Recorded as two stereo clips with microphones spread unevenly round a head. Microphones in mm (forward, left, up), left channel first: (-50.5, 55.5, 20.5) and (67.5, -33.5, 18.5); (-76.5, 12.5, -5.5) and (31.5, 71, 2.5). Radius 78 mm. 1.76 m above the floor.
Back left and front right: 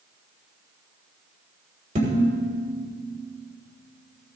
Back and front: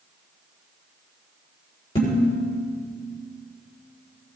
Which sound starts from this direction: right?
Dishes clattering, at 1.9 s.